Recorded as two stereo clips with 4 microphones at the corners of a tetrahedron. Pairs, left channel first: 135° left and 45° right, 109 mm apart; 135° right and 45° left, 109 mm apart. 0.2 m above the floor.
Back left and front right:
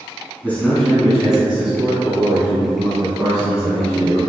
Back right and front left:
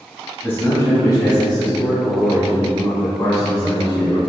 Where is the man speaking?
175° right, 1.1 m; by 4.2 s 90° right, 2.5 m.